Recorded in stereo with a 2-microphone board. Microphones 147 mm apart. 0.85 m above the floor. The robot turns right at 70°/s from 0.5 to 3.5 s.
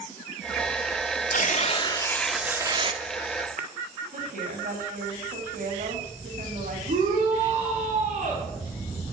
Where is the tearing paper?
110° left, 1.4 m; by 3.7 s 100° right, 1.4 m.